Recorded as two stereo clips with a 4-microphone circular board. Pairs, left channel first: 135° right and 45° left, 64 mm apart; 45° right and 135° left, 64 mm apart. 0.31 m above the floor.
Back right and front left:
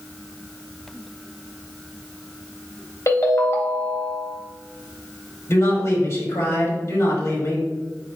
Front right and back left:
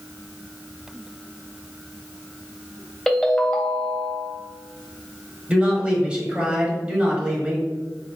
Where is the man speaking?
155° right, 1.3 m.